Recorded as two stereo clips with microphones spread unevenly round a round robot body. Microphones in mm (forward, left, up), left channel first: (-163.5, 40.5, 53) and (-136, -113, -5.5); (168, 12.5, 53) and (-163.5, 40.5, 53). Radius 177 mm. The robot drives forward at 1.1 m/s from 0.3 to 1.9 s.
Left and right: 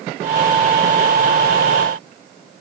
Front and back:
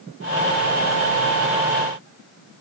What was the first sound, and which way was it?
Only background noise.